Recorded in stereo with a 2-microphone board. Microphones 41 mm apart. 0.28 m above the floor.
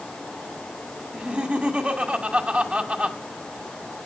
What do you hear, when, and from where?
1.1 s laughter: 30° right (ahead or behind), 1.8 m